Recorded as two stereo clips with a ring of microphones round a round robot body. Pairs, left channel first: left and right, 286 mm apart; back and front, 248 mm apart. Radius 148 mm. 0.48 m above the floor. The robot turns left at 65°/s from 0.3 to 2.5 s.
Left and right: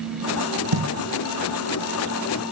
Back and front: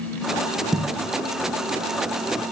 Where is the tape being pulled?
90° right, 3.5 m; by 0.9 s 100° right, 3.5 m.